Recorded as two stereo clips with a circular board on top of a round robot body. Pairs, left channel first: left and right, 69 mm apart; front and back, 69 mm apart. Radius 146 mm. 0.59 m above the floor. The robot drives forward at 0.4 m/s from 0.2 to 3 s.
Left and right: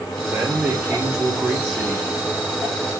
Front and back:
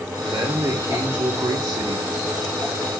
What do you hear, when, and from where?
0.3 s a man speaking: 145° right, 1.6 m; by 2.1 s 160° right, 2 m